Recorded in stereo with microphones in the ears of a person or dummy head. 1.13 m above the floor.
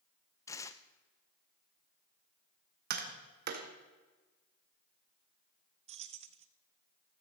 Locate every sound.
0.5 s tearing paper: 20° left (ahead or behind), 0.6 m
2.9 s tapping: 50° right (ahead or behind), 1.8 m
5.9 s keys jangling: 35° right (ahead or behind), 0.6 m